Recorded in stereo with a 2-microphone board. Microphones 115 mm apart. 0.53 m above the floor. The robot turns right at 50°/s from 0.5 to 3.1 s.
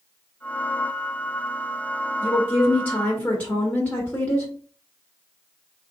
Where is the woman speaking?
25° left (ahead or behind), 1.2 m; by 4.5 s 10° left (ahead or behind), 1.2 m.